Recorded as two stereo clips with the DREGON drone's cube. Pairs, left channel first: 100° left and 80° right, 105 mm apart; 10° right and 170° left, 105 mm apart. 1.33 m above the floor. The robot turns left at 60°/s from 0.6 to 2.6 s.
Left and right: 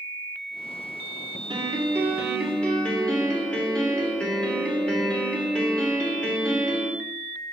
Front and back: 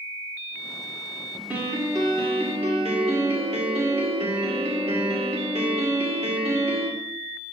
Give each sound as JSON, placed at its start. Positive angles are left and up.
{"t": 1.5, "sound": "a piano", "azimuth_deg": -115, "distance_m": 2.5}